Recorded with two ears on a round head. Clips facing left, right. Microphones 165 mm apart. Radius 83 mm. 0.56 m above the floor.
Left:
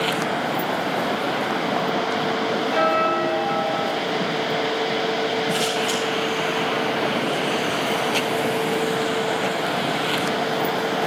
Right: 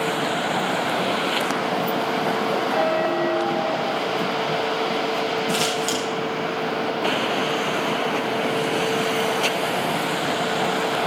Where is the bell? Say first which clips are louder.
Even; 25° left (ahead or behind), 2 m.